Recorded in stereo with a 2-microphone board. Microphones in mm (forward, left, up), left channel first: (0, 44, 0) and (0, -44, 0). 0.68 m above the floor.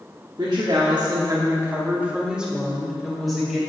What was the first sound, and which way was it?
A woman speaking, 55° right (ahead or behind).